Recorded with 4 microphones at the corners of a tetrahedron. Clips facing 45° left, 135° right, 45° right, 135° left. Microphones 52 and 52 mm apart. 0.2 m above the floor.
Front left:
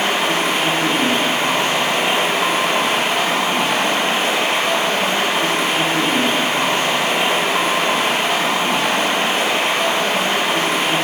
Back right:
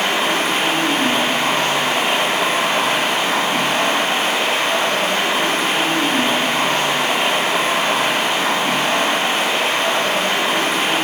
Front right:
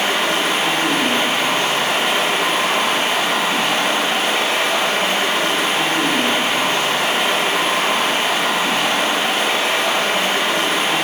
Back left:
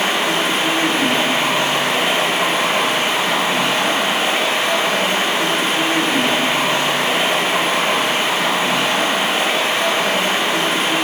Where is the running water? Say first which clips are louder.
Even, even; 95° left, 1.1 m.